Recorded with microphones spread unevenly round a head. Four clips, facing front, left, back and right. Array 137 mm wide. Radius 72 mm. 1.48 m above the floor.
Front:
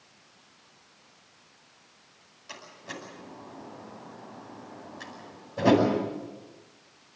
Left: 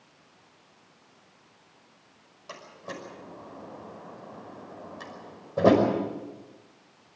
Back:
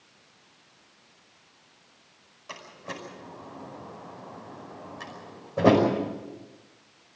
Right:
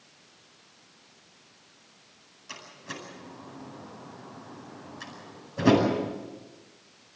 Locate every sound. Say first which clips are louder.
2.5 s a door slam: left 2 dB, back 3 dB; 120° left, 6 m